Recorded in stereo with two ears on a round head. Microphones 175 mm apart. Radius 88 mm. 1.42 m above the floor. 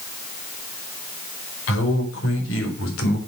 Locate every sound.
1.7 s a man speaking: 65° left (ahead or behind), 4.5 m; by 3.2 s 80° left, 3.5 m